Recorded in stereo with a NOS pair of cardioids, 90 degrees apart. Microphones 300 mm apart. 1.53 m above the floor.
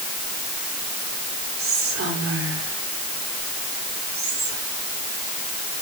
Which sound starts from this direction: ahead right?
Whispering, at 1.6 s.